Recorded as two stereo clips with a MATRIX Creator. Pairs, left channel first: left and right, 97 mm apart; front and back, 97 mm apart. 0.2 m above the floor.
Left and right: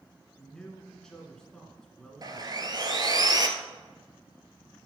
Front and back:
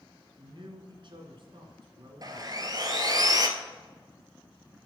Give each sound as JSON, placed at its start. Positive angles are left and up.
{"t": 0.4, "sound": "a man speaking", "azimuth_deg": 170, "distance_m": 2.0}
{"t": 2.2, "sound": "sawing", "azimuth_deg": -135, "distance_m": 1.0}